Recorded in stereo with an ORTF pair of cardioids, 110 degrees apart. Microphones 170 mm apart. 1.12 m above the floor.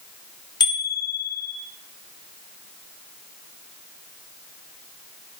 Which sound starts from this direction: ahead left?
A bicycle bell, at 0.6 s.